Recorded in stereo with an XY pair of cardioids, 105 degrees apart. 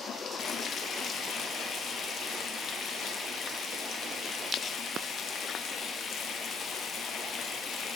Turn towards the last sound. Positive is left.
turn(degrees=60)